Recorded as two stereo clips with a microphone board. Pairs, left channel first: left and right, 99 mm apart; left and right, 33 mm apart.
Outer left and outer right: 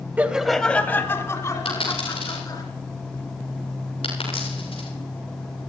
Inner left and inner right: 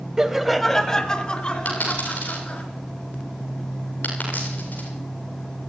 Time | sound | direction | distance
0.2 | laughter | 15° right (ahead or behind) | 0.9 m
1.6 | a dropped coin | 65° left (ahead or behind) | 8 m